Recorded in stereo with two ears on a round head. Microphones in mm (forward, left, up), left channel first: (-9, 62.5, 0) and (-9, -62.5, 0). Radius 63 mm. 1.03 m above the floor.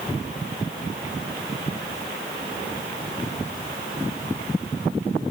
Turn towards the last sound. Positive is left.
No sound to turn to.